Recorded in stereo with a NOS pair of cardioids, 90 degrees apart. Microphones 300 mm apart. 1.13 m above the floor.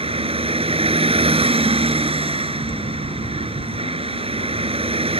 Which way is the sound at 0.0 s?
20° right.